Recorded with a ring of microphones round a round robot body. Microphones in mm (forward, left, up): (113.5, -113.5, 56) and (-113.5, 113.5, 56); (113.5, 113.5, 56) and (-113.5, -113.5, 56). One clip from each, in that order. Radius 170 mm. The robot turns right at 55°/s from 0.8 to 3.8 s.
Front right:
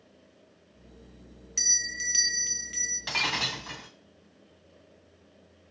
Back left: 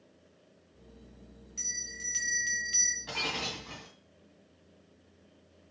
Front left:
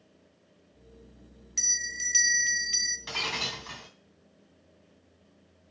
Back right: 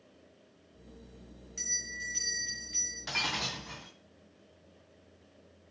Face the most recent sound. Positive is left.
turn(degrees=-10)